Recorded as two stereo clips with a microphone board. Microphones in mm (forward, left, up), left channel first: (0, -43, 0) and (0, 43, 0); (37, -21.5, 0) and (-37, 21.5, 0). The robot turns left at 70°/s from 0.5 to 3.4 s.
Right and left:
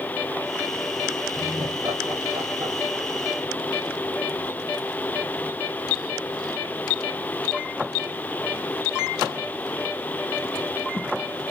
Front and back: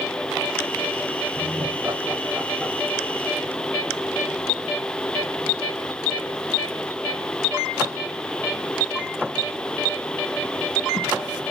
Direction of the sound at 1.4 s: 145° left.